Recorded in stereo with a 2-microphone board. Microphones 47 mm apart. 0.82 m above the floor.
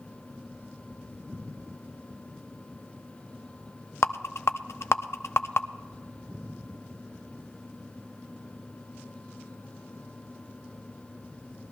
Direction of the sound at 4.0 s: 65° left (ahead or behind).